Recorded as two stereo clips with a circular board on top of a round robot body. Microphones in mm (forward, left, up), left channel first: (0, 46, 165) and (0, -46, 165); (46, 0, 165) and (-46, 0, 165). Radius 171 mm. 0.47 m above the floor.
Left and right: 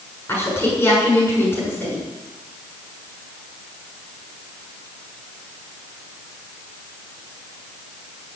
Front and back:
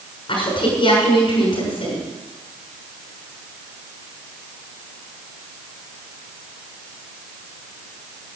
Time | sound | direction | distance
0.3 | a woman speaking | 25° left | 7 m